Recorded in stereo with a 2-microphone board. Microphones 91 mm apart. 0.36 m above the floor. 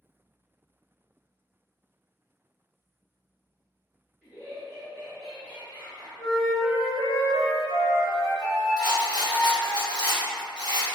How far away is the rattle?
About 0.9 m.